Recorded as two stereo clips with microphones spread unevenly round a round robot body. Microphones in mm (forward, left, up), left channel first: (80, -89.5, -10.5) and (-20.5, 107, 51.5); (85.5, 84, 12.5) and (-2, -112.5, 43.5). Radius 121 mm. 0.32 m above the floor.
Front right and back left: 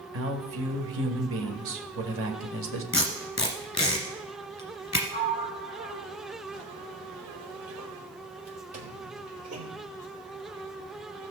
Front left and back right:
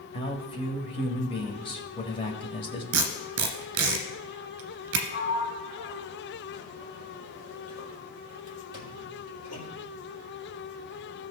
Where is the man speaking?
110° left, 1.4 m.